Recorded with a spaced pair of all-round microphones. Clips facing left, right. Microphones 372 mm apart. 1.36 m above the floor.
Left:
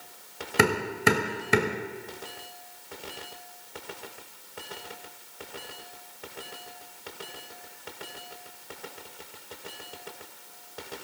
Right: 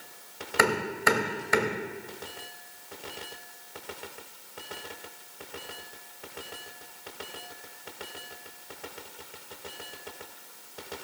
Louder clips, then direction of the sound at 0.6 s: Left 3 dB; 45° left (ahead or behind).